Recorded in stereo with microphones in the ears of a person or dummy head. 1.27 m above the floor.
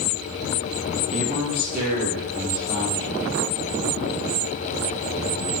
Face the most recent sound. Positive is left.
turn(degrees=-60)  # may be behind; listen again after turning